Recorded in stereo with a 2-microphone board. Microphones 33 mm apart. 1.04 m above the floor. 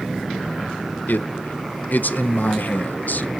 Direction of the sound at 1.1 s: 55° left (ahead or behind).